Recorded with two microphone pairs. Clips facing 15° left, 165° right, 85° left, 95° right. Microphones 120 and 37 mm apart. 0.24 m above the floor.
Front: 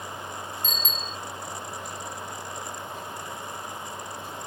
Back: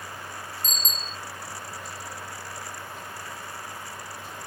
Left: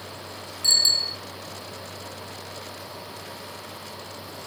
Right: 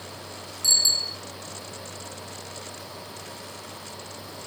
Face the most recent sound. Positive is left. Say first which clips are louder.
# front 2 dB, left 2 dB
turn(degrees=145)